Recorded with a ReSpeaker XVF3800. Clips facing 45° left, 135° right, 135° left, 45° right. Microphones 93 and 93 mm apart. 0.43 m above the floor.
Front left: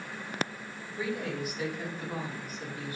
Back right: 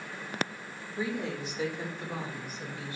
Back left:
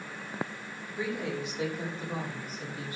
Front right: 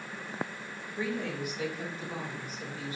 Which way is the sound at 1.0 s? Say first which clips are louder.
Even, even; 140° right.